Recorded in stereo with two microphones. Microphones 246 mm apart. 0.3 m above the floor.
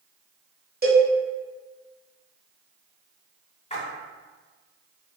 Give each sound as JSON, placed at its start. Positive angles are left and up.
{"t": 0.8, "sound": "a cowbell", "side_deg": -35, "distance_m": 1.0}
{"t": 3.7, "sound": "a splash", "side_deg": 25, "distance_m": 0.8}